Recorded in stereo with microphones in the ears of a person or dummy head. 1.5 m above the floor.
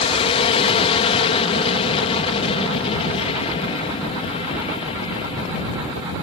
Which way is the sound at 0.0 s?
30° left (ahead or behind).